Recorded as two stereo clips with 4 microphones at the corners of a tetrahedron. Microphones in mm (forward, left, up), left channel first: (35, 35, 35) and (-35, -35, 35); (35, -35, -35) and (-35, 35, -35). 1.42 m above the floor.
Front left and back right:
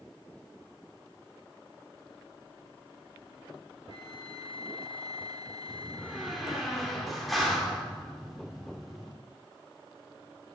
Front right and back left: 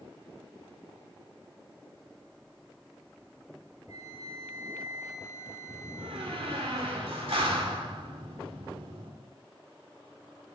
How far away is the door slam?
About 3 m.